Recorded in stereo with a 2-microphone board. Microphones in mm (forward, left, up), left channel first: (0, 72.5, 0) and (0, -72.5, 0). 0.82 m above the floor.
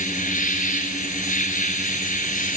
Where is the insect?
65° left (ahead or behind), 6 m.